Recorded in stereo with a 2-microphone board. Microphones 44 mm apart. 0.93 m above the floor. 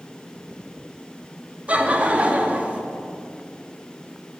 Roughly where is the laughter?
Right.